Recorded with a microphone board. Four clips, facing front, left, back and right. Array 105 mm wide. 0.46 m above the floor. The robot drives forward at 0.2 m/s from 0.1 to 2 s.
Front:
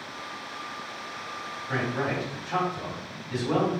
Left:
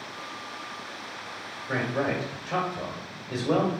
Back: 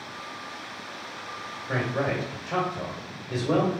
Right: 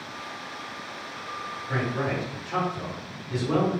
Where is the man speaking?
130° left, 2 m; by 3.7 s 135° left, 2 m.